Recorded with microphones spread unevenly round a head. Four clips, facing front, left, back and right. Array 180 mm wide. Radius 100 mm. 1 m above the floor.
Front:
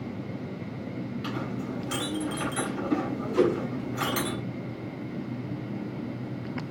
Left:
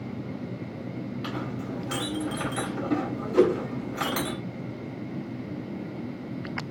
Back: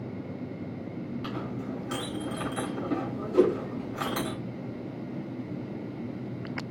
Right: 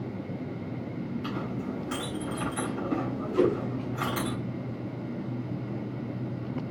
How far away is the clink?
About 2.5 m.